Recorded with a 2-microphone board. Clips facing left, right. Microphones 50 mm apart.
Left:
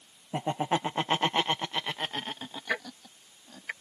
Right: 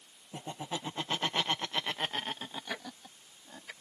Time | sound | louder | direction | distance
0.3 | laughter | left 11 dB | 70° left (ahead or behind) | ?
2.7 | ticking | left 8 dB | 55° left (ahead or behind) | ?